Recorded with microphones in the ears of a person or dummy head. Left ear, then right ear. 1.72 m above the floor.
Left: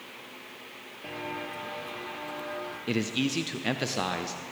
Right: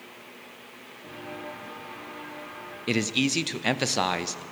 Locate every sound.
1.0 s footsteps: 30° left (ahead or behind), 1.9 m; by 2.8 s 35° left (ahead or behind), 3 m
2.9 s a man speaking: 25° right (ahead or behind), 0.5 m